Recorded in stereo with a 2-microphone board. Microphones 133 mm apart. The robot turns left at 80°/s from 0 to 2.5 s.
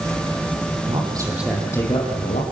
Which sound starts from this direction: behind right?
A man speaking, at 0.9 s.